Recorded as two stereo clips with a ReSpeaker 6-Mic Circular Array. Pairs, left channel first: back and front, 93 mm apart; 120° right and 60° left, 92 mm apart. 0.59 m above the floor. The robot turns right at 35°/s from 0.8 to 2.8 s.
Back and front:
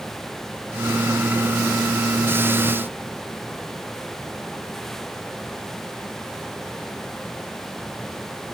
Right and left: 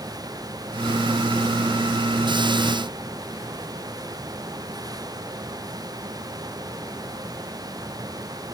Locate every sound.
Only background noise.